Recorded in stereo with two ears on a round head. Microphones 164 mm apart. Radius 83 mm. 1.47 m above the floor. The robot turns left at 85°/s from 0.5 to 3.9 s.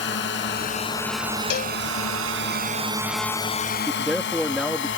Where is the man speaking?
5° right (ahead or behind); by 4.9 s centre (ahead or behind).